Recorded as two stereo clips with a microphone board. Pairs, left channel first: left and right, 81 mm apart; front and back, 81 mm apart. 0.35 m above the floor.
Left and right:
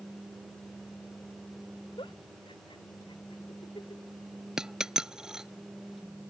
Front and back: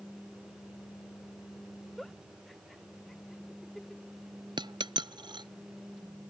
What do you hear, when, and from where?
2.0 s a giggle: 85° left
4.6 s a dropped coin: 170° right